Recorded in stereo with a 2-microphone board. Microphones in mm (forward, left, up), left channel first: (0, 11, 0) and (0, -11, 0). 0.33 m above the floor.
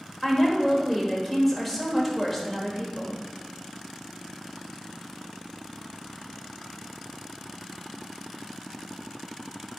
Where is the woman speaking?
Centre (ahead or behind), 1.0 m.